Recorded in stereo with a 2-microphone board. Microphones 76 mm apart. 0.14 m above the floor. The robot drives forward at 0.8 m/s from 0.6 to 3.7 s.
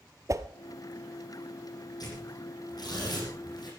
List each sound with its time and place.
0.3 s a whoosh: 45° right (ahead or behind), 0.8 m
2.0 s tearing paper: 60° left (ahead or behind), 7.5 m; by 3.7 s 65° left (ahead or behind), 7 m